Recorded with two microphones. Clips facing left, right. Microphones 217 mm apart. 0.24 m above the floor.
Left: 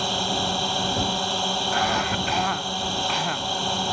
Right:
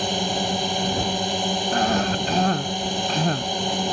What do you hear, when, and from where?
0.0 s a drone: 20° right (ahead or behind)
1.7 s a cough: 40° right (ahead or behind)